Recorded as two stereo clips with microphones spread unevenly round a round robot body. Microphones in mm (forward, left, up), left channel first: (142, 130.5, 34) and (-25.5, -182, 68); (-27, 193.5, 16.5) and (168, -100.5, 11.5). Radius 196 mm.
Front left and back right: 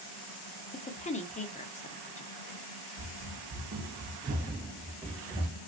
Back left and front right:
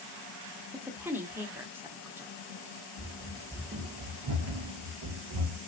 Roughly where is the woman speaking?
Ahead.